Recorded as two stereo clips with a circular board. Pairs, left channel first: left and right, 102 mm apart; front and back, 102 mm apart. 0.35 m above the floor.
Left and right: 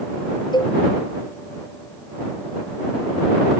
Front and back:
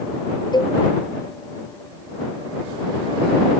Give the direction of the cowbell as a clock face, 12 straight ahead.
10 o'clock.